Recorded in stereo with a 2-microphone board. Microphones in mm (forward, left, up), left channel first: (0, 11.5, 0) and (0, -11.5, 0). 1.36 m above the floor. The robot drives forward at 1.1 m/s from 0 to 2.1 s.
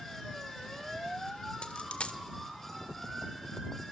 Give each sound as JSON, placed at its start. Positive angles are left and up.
{"t": 1.6, "sound": "a dropped coin", "side_deg": 50, "distance_m": 1.6}